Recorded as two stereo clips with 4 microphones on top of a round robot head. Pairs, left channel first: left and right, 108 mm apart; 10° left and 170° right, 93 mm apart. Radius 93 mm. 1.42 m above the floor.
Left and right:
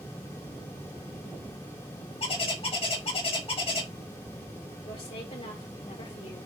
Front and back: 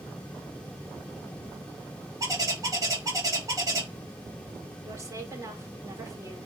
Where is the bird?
135° left, 4.5 m.